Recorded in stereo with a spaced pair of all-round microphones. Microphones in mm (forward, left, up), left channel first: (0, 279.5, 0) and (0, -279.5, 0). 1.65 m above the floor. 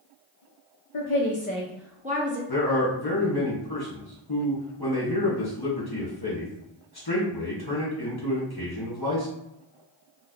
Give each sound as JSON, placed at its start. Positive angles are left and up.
{"t": 0.9, "sound": "a woman speaking", "side_deg": 55, "distance_m": 0.6}
{"t": 2.5, "sound": "a man speaking", "side_deg": 40, "distance_m": 1.2}